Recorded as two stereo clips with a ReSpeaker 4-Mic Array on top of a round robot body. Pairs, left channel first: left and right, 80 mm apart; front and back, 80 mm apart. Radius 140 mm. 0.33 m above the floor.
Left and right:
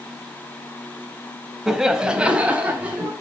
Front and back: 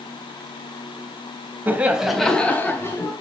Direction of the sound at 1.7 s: 170° right.